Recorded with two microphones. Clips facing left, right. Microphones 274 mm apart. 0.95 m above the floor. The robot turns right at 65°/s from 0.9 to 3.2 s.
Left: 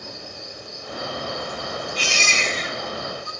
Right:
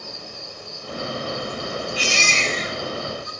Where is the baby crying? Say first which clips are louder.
Right 2 dB; 10° right, 3.5 m; by 3.3 s 70° left, 3.5 m.